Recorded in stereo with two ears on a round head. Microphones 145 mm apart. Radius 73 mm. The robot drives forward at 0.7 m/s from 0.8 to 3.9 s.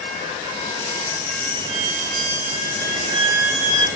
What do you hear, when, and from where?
1.7 s a violin: 55° right (ahead or behind), 1.5 m; by 3.9 s 40° right (ahead or behind), 1.8 m